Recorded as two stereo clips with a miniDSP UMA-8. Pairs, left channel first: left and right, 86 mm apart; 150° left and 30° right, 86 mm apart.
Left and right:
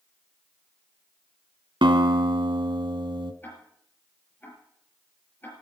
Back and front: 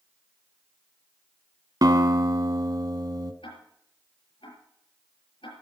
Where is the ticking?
155° left, 5.5 m.